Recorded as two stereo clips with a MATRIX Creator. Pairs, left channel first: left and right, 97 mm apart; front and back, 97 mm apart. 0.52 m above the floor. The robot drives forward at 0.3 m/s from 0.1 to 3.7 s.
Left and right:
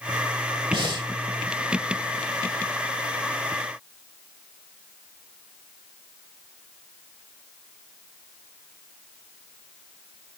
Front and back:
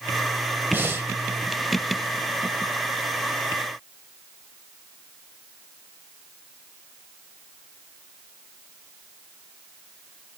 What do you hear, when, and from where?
0.7 s breathing: 115° right, 1.2 m; by 1.1 s 120° right, 1.2 m